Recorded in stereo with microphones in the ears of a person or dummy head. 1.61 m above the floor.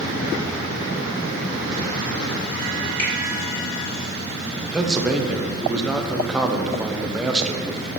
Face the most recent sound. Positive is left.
turn(degrees=5)  # may be behind; listen again after turning